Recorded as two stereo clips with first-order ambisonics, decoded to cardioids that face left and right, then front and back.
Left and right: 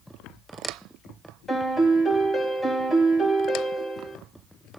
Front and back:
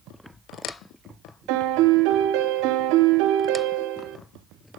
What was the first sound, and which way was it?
A piano, 170° left.